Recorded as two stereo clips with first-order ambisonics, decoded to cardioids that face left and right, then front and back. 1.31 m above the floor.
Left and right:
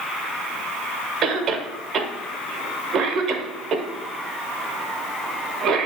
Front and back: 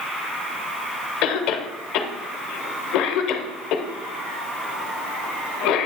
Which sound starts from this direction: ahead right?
A cough, at 1.2 s.